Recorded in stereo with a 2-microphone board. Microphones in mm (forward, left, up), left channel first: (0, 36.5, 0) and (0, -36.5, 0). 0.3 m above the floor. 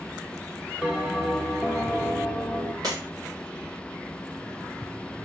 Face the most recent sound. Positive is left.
turn(degrees=-65)  # may be behind; listen again after turning